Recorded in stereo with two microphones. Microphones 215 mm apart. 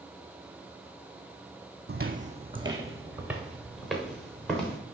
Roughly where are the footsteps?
Right.